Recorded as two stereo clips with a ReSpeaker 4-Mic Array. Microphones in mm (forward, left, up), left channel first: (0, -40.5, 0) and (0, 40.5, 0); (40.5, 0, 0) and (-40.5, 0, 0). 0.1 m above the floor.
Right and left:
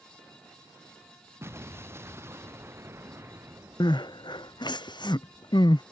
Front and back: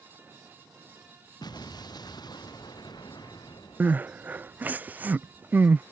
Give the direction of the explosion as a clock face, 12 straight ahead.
11 o'clock.